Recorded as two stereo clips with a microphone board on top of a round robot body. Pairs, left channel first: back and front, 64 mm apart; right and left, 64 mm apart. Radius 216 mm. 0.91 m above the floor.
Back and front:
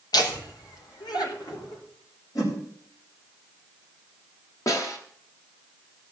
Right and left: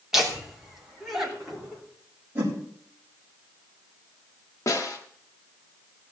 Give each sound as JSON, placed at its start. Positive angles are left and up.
{"t": 0.1, "sound": "laughter", "azimuth_deg": 170, "distance_m": 3.0}
{"t": 2.4, "sound": "a whoosh", "azimuth_deg": 150, "distance_m": 4.5}
{"t": 4.7, "sound": "a snare drum", "azimuth_deg": -140, "distance_m": 1.2}